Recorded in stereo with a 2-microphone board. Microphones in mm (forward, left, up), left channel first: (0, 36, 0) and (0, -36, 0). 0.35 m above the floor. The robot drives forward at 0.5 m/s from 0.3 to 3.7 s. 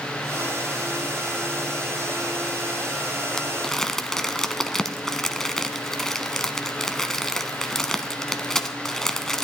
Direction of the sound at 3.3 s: 10° left (ahead or behind).